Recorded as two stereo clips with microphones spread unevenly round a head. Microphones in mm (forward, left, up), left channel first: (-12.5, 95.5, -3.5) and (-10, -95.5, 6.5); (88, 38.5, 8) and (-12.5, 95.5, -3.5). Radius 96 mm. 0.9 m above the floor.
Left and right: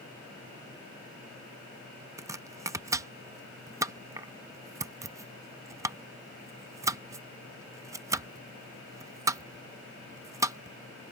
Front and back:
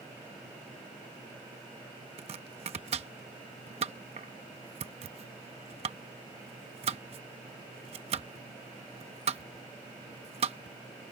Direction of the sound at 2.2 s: 165° right.